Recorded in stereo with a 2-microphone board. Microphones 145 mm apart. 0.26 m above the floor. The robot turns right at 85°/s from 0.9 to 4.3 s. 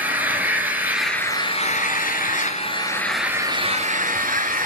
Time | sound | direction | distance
0.0 | an engine running | 10° right | 2 m